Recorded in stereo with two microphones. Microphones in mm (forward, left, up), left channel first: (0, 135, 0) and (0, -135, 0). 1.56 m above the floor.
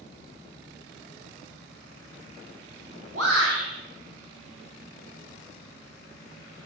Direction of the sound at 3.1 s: 60° right (ahead or behind).